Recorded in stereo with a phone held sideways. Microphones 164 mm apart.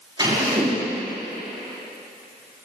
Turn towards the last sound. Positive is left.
turn(degrees=-25)  # may be behind; listen again after turning